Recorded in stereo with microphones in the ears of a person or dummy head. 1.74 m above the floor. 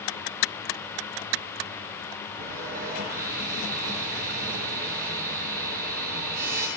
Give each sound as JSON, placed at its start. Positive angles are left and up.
{"t": 2.4, "sound": "sawing", "side_deg": -45, "distance_m": 3.5}